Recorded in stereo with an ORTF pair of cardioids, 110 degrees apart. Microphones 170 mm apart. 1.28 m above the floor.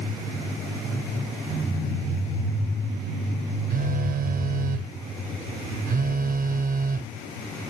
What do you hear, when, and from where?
3.7 s a phone buzzing: 60° right